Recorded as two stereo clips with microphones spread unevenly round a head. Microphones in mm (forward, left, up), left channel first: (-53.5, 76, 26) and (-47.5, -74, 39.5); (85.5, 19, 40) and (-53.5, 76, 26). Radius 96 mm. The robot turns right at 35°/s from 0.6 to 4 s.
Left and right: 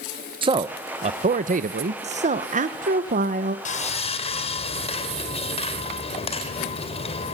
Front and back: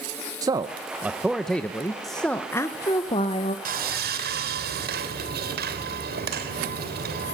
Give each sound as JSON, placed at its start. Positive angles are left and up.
{"t": 0.4, "sound": "a man speaking", "azimuth_deg": -145, "distance_m": 0.7}
{"t": 2.0, "sound": "a woman speaking", "azimuth_deg": -115, "distance_m": 0.9}
{"t": 3.6, "sound": "sawing", "azimuth_deg": 130, "distance_m": 3.0}